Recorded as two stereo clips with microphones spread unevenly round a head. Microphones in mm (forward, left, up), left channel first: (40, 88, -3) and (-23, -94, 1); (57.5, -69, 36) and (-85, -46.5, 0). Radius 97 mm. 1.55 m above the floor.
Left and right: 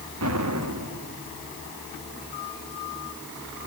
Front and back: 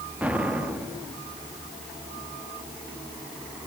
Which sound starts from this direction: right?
An explosion, at 0.2 s.